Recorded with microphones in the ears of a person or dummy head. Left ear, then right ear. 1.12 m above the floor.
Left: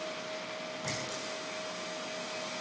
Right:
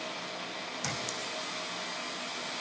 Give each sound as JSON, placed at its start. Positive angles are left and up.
{"t": 0.8, "sound": "a clink", "side_deg": -75, "distance_m": 5.5}